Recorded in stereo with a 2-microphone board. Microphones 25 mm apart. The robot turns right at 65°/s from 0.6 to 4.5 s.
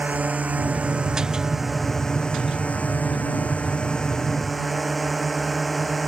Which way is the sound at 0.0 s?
75° right.